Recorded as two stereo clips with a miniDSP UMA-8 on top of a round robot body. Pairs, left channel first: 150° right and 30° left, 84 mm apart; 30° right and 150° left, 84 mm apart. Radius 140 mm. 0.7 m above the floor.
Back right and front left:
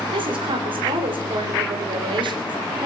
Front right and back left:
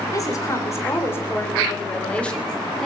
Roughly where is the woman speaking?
Ahead.